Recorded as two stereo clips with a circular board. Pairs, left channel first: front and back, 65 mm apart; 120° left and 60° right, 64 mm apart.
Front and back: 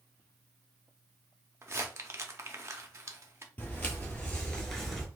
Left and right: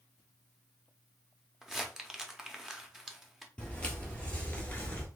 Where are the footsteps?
50° left, 1.5 m; by 5.1 s 100° left, 0.9 m.